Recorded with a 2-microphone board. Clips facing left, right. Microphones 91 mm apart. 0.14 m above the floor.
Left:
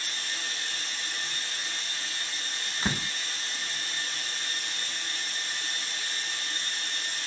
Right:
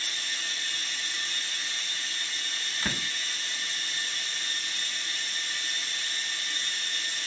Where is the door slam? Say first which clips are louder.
Left 3 dB; 20° left (ahead or behind), 0.8 m.